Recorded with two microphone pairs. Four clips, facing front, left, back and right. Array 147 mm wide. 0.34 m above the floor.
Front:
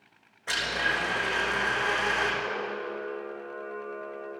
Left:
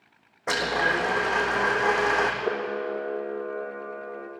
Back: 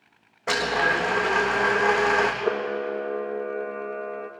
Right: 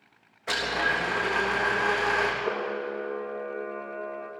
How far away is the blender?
About 3.5 m.